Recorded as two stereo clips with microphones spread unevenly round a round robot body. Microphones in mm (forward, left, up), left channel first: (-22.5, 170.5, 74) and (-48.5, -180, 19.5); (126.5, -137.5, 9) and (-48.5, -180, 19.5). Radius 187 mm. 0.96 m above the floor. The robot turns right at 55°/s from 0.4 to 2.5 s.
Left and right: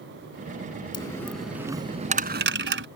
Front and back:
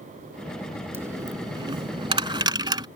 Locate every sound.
0.9 s a dropped coin: 135° left; by 2.9 s 140° right